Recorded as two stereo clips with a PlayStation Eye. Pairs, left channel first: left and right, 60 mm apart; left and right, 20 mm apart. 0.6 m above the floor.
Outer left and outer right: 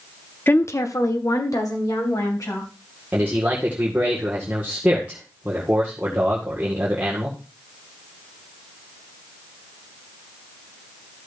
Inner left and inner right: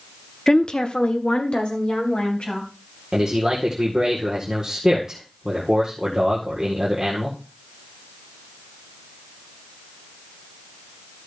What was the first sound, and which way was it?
A woman speaking, 35° left (ahead or behind).